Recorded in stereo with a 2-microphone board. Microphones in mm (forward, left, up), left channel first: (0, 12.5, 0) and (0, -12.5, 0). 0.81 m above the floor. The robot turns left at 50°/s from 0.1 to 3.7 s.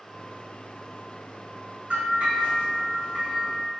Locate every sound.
1.9 s a bell: 60° right, 1.6 m; by 3.7 s 150° right, 1.6 m